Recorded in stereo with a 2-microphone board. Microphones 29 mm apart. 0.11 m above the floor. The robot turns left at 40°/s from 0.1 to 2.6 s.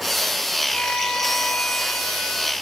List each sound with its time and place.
0.7 s a violin: 140° left, 4 m; by 2.5 s 70° left, 4 m